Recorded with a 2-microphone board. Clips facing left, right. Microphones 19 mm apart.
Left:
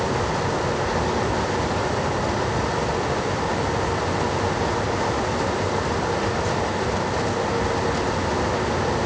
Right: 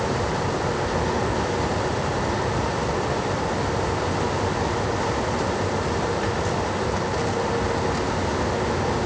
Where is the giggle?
I don't hear a giggle.